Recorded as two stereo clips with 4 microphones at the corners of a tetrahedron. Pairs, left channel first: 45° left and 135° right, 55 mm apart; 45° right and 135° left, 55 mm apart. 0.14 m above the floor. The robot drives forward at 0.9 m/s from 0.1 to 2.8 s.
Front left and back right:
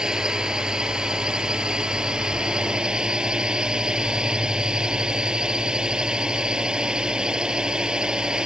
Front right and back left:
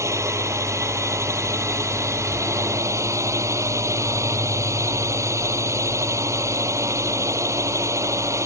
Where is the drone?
150° left; by 8.5 s 155° left.